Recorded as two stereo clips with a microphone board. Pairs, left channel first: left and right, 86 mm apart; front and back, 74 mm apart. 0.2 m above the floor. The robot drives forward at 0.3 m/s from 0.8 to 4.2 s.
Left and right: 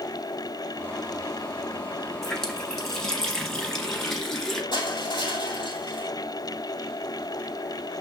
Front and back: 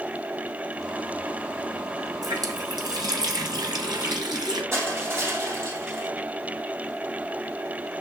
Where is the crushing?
125° left, 3 m.